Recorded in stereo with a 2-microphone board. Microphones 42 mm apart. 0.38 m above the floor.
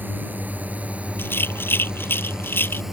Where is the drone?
50° right (ahead or behind); by 2.9 s 10° right (ahead or behind).